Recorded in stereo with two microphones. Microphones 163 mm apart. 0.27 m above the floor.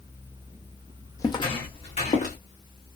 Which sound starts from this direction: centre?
Footsteps, at 1.2 s.